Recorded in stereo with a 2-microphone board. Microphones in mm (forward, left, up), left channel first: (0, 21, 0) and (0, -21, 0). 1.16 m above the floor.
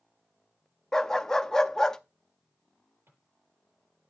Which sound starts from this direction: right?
A drawer, at 3.1 s.